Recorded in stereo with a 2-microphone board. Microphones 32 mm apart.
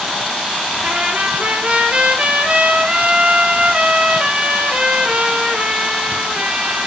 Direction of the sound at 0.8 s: 40° right (ahead or behind).